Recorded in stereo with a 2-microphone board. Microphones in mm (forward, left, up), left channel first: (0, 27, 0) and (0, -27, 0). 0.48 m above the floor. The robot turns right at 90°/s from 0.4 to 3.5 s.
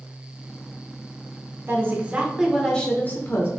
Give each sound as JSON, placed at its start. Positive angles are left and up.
{"t": 1.7, "sound": "a woman speaking", "azimuth_deg": -80, "distance_m": 1.0}